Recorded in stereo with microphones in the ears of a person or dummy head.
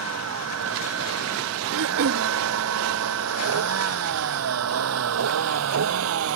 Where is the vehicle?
90° right; by 6.4 s 75° right (ahead or behind).